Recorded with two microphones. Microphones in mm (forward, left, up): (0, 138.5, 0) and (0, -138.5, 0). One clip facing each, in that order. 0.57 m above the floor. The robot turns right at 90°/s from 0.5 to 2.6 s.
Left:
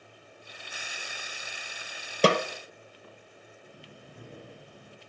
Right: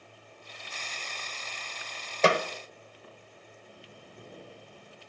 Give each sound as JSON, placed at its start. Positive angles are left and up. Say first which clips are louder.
{"t": 2.2, "sound": "a snare drum", "louder": "left 2 dB", "side_deg": 40, "distance_m": 0.6}
{"t": 3.6, "sound": "breathing", "louder": "left 2 dB", "side_deg": 60, "distance_m": 4.5}